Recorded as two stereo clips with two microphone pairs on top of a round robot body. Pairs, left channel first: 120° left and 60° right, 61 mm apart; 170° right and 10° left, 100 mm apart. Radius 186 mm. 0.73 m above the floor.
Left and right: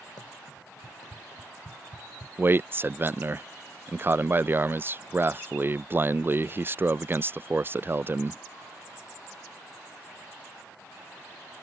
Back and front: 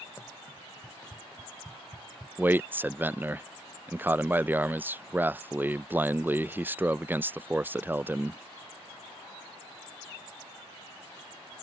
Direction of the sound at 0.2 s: 125° left.